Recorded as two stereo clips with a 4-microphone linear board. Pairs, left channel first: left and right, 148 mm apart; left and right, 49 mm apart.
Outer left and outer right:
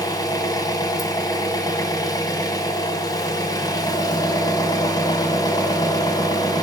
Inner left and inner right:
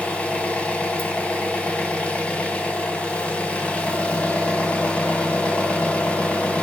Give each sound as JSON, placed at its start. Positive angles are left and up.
{"t": 0.0, "sound": "an engine running", "side_deg": 25, "distance_m": 2.5}